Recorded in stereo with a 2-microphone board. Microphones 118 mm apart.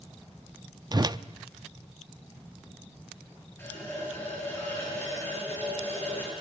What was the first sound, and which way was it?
A whoosh, 35° right (ahead or behind).